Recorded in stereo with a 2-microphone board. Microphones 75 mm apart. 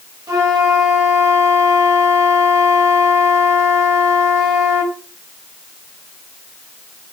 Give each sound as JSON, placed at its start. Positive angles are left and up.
{"t": 0.3, "sound": "a flute", "side_deg": -55, "distance_m": 1.1}